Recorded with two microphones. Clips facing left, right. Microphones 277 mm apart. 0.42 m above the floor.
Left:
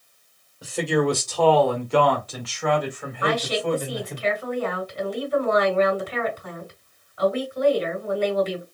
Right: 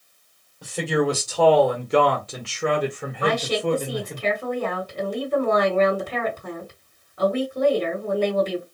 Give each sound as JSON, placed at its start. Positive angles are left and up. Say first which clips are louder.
{"t": 0.6, "sound": "a man speaking", "louder": "left 1 dB", "side_deg": 5, "distance_m": 1.7}
{"t": 3.2, "sound": "a woman speaking", "louder": "right 2 dB", "side_deg": -50, "distance_m": 2.5}